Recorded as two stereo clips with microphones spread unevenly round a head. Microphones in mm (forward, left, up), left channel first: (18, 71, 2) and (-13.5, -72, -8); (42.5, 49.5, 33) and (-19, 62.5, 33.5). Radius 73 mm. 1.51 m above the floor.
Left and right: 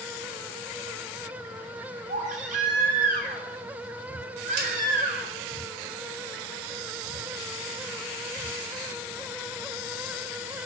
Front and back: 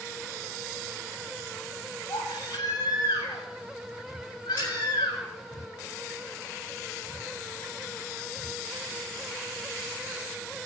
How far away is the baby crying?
About 3.5 m.